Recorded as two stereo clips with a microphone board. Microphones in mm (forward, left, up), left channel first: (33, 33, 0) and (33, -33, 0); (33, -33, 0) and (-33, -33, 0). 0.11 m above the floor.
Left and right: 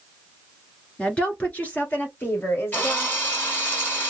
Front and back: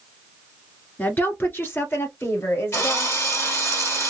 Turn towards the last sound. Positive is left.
turn(degrees=30)